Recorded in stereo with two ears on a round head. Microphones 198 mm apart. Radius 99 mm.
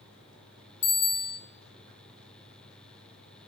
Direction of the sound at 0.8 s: 35° left (ahead or behind).